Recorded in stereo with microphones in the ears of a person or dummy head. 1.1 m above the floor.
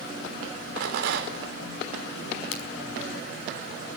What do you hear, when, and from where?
0.8 s a rattle: 65° right (ahead or behind), 4 m
2.5 s a crack: 85° left, 5.5 m